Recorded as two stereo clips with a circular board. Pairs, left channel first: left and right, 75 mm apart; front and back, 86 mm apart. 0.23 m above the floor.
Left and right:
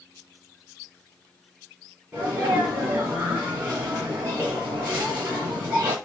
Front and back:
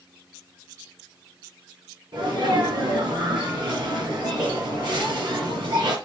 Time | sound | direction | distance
2.1 | a sneeze | 145° right | 4 m